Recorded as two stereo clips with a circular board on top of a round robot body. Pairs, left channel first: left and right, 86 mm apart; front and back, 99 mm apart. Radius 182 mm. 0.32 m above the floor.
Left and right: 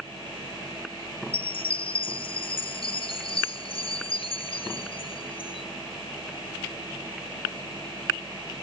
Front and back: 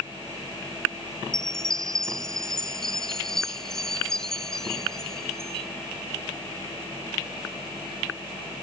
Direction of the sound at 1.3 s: 85° left.